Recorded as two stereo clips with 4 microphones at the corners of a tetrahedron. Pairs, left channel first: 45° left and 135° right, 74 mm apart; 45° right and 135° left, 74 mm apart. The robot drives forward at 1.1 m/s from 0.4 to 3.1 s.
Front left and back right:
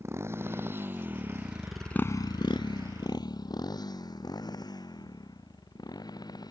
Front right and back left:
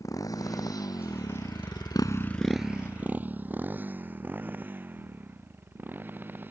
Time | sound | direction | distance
0.0 | a motorcycle | 85° right | ?